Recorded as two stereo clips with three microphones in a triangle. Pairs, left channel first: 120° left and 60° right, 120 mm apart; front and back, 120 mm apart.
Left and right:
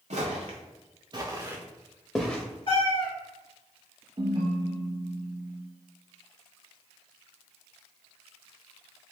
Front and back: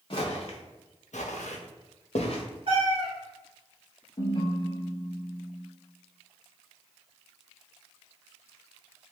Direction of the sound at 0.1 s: 45° right.